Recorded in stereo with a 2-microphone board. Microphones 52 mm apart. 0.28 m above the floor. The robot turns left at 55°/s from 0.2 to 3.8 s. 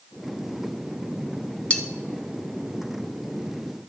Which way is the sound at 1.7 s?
25° left (ahead or behind).